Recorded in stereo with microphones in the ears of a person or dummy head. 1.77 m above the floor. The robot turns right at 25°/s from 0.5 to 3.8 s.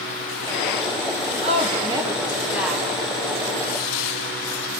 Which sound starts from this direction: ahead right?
A woman speaking, at 1.4 s.